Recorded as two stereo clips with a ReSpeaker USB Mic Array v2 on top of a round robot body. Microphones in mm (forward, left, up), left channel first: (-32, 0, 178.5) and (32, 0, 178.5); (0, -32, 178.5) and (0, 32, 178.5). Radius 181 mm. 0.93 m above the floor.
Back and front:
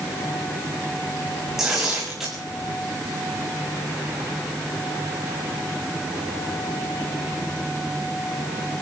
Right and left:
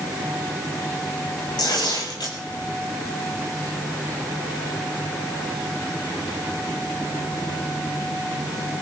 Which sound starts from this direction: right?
Tearing paper, at 1.6 s.